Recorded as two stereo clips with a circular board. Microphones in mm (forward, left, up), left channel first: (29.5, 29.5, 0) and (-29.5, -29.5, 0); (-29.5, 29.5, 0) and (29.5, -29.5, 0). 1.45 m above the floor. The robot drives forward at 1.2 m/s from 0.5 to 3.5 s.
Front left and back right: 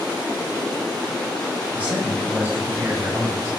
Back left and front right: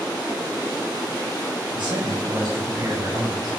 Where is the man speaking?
60° right, 7.5 m; by 3.5 s 75° right, 7 m.